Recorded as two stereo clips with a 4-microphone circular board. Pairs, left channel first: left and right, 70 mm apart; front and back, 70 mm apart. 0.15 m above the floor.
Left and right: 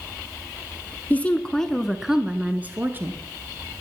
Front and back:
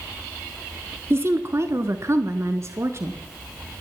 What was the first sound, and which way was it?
A woman speaking, 145° left.